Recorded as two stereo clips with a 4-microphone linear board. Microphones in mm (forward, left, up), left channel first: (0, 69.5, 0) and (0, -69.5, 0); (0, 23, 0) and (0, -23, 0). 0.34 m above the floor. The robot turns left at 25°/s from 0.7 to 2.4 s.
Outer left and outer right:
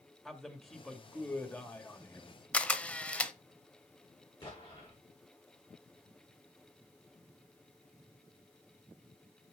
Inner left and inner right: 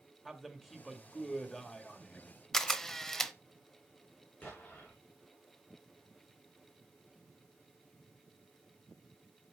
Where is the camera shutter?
10° left (ahead or behind), 0.6 m.